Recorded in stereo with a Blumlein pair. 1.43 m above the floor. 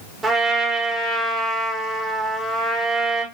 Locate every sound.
0.2 s a trumpet: 15° right, 0.9 m